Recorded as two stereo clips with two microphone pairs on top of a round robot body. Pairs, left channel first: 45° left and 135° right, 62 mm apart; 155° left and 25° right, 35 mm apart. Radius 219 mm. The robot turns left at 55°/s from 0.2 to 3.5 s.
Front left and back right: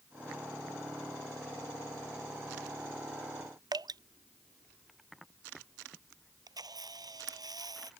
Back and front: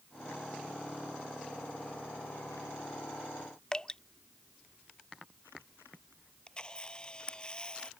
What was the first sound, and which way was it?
Dripping, 135° right.